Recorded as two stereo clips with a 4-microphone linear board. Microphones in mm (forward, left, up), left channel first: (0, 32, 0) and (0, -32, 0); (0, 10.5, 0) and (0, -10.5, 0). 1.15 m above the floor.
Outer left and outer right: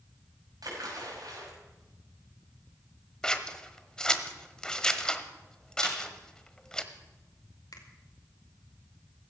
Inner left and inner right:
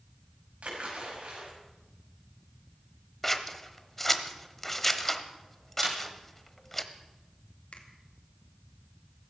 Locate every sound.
0.6 s a splash: 90° right, 6 m
3.2 s scissors: 10° left (ahead or behind), 1.0 m
5.8 s a snare drum: 70° right (ahead or behind), 3.5 m
7.7 s a finger snap: 80° left, 2 m